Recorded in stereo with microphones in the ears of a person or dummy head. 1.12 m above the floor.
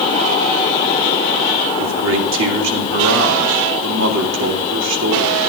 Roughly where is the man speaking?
Right.